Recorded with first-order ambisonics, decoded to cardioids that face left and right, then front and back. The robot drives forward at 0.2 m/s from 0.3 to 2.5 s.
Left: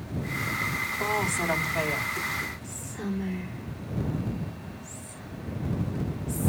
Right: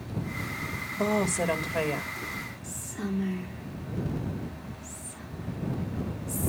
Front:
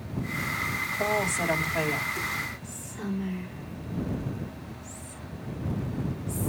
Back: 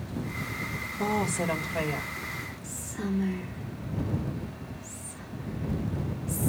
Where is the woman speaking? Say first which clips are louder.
Right 2 dB, front 1 dB; 85° right, 1.8 m; by 2.1 s 90° right, 1.8 m.